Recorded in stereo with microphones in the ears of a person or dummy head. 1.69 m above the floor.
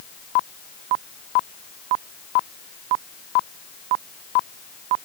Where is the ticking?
I don't hear ticking.